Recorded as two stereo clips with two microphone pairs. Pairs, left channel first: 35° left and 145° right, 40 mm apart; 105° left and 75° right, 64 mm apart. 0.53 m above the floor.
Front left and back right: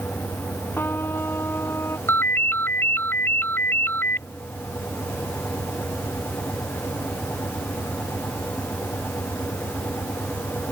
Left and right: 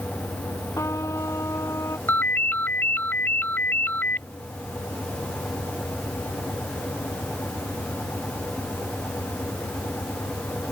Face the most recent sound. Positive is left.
turn(degrees=50)